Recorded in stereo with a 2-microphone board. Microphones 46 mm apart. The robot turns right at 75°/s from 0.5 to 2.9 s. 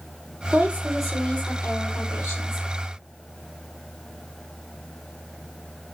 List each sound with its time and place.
0.5 s a woman speaking: 40° right, 5.5 m; by 2.7 s 120° left, 5.5 m